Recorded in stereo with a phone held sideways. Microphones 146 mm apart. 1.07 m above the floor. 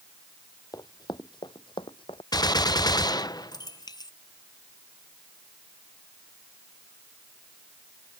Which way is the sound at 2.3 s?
25° left (ahead or behind).